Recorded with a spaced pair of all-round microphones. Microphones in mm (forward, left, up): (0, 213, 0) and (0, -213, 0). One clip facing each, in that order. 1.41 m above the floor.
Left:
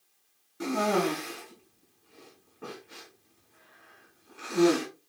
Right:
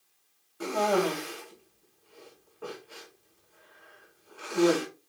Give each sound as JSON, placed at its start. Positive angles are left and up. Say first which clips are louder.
{"t": 0.6, "sound": "a cough", "louder": "even", "side_deg": 35, "distance_m": 3.0}